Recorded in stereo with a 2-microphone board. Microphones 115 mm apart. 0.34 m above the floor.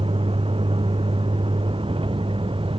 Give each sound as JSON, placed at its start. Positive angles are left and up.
{"t": 0.0, "sound": "a vehicle", "side_deg": -50}